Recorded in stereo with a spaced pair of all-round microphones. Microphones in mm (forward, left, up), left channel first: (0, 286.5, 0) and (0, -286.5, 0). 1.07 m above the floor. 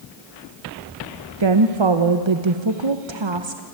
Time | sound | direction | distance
1.4 | a woman speaking | 50° right (ahead or behind) | 1.0 m